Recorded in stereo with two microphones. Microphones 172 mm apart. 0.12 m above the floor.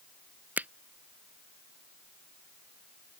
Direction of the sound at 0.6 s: 10° right (ahead or behind).